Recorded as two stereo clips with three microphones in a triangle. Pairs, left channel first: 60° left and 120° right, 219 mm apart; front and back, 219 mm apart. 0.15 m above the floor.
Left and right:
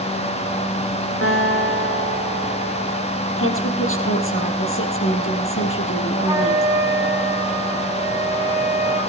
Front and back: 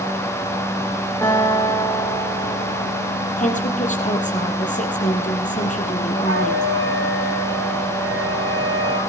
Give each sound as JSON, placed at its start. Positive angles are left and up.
{"t": 1.2, "sound": "a guitar", "azimuth_deg": 75, "distance_m": 8.0}
{"t": 3.4, "sound": "a woman speaking", "azimuth_deg": 55, "distance_m": 4.5}
{"t": 6.2, "sound": "a flute", "azimuth_deg": 170, "distance_m": 6.5}